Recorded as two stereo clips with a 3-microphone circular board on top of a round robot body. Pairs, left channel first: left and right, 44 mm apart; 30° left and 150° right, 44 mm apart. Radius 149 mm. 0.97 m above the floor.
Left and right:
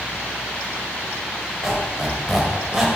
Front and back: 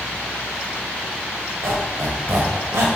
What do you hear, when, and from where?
1.6 s a squeak: 170° right, 1.8 m